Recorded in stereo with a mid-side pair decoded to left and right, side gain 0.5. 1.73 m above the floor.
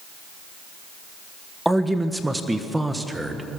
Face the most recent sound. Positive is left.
turn(degrees=-10)